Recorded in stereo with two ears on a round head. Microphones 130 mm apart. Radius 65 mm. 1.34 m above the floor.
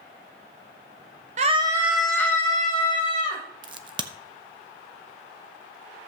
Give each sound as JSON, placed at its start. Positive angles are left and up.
{"t": 1.4, "sound": "a scream", "side_deg": -50, "distance_m": 0.6}
{"t": 3.6, "sound": "a crack", "side_deg": -30, "distance_m": 0.7}